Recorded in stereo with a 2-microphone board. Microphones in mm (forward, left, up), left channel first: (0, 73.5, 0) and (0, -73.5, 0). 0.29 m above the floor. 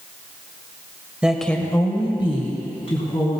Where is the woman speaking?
5° right (ahead or behind), 1.2 m; by 3.4 s 50° left (ahead or behind), 3 m.